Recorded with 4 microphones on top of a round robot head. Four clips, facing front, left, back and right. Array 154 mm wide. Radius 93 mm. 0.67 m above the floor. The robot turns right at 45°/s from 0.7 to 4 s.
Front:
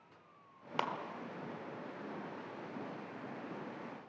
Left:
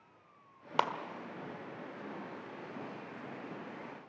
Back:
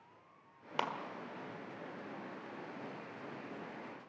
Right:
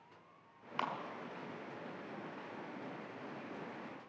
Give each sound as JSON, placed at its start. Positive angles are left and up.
{"t": 0.8, "sound": "a clap", "azimuth_deg": 90, "distance_m": 1.7}